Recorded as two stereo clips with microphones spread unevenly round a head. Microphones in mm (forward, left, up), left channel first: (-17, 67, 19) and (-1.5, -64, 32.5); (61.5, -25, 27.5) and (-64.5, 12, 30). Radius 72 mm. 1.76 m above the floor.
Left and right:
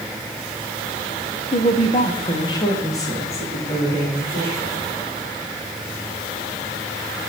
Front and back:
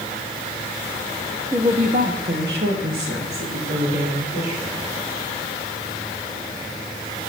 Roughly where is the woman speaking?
Left.